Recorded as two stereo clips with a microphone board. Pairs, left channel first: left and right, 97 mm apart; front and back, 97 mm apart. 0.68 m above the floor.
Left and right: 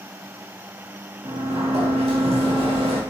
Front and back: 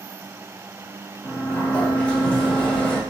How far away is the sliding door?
About 1.0 m.